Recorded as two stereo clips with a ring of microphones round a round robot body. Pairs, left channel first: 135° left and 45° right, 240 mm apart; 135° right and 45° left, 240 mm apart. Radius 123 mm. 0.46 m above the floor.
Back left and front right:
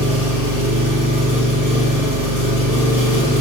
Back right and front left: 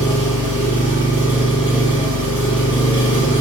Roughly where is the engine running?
Behind left.